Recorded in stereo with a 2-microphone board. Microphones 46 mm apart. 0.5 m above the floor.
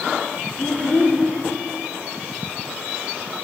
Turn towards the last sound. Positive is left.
turn(degrees=30)  # may be behind; listen again after turning